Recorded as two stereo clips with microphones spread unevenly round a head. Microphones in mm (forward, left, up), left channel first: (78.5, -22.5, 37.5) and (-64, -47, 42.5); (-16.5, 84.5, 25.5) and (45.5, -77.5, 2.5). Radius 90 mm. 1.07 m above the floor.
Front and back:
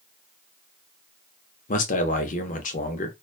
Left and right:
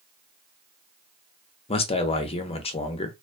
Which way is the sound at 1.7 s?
50° left.